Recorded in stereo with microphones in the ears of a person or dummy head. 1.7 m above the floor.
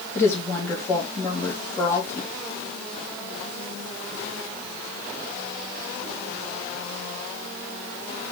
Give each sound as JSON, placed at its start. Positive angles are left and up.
{"t": 0.1, "sound": "a woman speaking", "side_deg": 15, "distance_m": 3.0}